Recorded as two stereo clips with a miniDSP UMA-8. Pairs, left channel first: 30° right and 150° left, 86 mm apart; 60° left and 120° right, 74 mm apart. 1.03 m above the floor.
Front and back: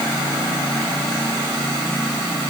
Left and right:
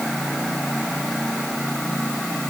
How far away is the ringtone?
No ringtone in this recording.